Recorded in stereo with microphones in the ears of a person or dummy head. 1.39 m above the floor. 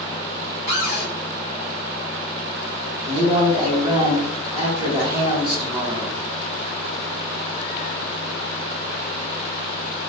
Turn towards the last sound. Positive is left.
turn(degrees=-25)  # may be behind; listen again after turning